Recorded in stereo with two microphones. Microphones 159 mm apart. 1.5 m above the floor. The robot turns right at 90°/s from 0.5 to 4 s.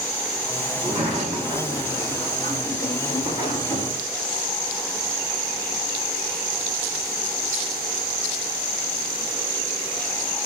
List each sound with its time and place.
0.8 s a sliding door: 115° right, 1.0 m; by 4.0 s 175° left, 1.0 m